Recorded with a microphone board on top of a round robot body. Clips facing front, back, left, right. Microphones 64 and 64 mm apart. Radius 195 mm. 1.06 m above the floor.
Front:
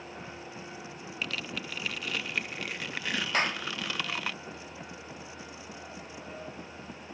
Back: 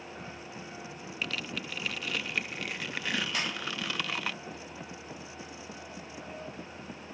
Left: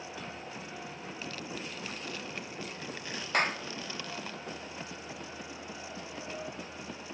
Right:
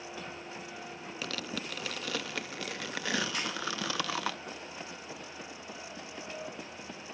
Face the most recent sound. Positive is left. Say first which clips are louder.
# front 5 dB, left 6 dB
turn(degrees=50)